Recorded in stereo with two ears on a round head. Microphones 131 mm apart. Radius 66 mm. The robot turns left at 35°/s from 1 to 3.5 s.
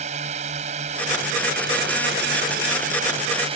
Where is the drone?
50° right; by 3.6 s 135° right.